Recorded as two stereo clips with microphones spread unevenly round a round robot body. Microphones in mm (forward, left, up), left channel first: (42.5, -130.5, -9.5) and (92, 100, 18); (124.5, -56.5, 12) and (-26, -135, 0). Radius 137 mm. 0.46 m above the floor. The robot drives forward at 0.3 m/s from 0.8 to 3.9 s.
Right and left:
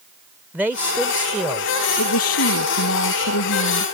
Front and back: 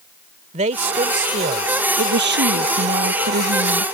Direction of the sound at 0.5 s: 165° left.